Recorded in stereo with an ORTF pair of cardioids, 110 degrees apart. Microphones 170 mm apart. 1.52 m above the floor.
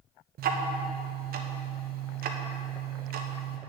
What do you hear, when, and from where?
0.4 s ticking: 65° right, 1.2 m